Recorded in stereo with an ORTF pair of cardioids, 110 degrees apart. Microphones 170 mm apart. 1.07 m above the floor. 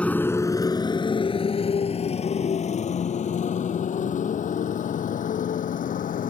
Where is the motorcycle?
5° left; by 6.3 s 55° left.